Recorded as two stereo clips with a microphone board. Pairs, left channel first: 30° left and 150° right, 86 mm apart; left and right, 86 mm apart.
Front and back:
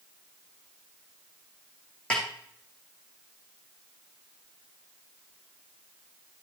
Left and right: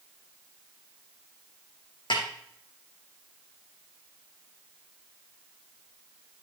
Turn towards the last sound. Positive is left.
turn(degrees=110)